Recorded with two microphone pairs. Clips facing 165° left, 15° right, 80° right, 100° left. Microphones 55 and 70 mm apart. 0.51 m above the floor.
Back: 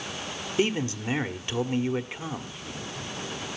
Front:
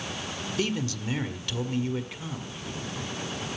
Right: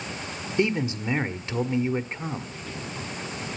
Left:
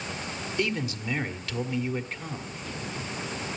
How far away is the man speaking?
About 1.5 m.